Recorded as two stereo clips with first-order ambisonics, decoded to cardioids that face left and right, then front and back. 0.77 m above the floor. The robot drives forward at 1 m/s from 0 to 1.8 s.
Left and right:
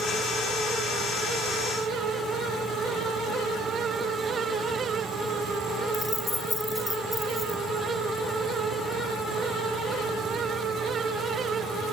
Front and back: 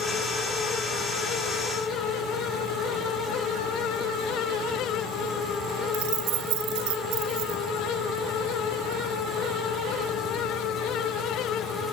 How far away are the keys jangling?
About 1.3 m.